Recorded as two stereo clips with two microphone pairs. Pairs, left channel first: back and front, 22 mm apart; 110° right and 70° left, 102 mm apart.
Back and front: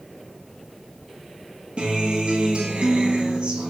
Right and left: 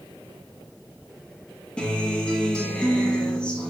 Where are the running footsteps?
I don't hear running footsteps.